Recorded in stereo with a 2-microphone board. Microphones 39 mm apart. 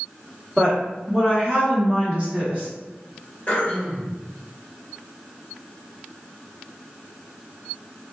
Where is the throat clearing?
30° left (ahead or behind), 1.8 m.